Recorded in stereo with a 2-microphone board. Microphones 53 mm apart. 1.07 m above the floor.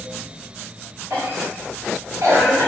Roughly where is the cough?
Right.